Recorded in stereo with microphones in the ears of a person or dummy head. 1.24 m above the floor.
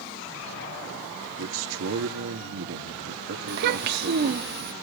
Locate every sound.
1.4 s a man speaking: 70° right (ahead or behind), 2.5 m
3.5 s a child speaking: 50° right (ahead or behind), 0.9 m